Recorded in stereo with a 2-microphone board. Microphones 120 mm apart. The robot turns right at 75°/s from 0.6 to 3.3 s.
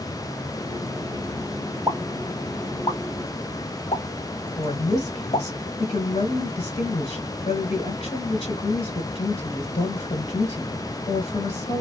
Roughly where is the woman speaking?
Left.